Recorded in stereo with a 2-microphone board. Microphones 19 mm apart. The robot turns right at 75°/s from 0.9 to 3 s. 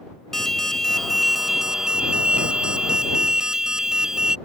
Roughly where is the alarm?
Behind left.